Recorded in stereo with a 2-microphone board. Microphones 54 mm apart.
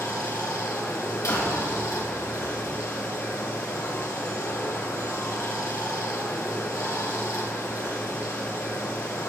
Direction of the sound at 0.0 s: 70° left (ahead or behind).